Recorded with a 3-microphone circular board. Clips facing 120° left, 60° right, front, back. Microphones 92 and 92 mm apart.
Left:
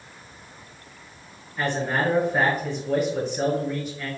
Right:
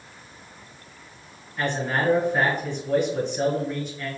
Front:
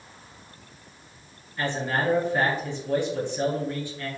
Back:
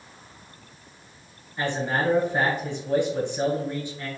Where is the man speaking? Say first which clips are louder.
Left 1 dB, back 1 dB; 160° right, 1.2 m.